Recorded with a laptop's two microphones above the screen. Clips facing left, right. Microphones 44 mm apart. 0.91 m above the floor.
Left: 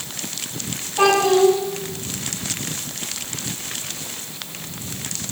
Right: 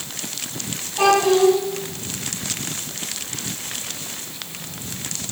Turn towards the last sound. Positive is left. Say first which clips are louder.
# even
turn(degrees=10)  # may be behind; listen again after turning